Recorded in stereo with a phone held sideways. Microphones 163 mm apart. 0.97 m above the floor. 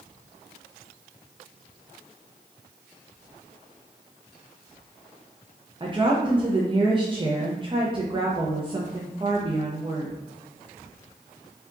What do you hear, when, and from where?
5.8 s a woman speaking: 30° right (ahead or behind), 0.5 m